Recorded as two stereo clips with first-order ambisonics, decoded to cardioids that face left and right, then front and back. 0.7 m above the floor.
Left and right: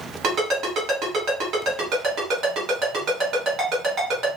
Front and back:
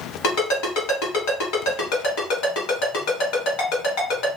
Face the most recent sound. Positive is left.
turn(degrees=-35)